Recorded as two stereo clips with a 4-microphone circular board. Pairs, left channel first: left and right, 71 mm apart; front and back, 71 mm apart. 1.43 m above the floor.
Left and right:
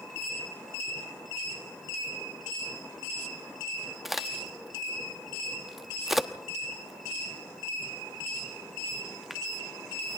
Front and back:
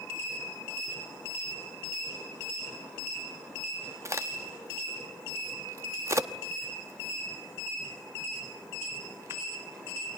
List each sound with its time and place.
4.0 s a crack: 175° right, 1.0 m